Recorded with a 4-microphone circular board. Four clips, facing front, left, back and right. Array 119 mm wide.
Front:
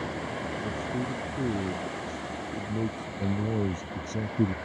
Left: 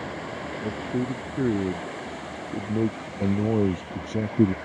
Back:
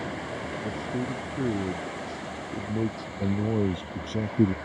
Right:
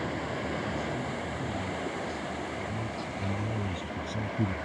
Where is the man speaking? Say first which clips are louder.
Left 5 dB, back 2 dB; 95° left; by 4.6 s 110° left.